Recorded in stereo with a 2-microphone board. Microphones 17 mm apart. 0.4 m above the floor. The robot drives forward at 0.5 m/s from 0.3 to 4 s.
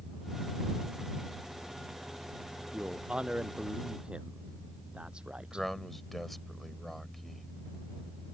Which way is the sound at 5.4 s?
15° left (ahead or behind).